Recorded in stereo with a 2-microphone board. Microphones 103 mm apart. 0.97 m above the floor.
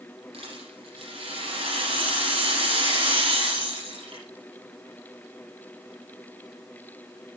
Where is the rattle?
65° right (ahead or behind), 8 m.